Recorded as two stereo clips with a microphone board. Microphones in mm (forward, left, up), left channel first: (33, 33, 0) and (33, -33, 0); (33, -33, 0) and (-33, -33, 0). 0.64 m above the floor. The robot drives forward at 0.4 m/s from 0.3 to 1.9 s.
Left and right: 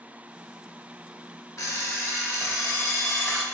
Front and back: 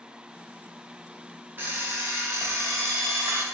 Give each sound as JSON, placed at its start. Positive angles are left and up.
{"t": 1.6, "sound": "an alarm clock", "azimuth_deg": 125, "distance_m": 0.8}